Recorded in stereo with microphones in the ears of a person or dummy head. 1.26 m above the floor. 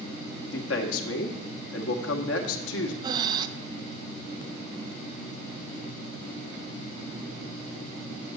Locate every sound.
0.5 s a man speaking: 80° left, 1.7 m
3.0 s breathing: 25° right (ahead or behind), 0.8 m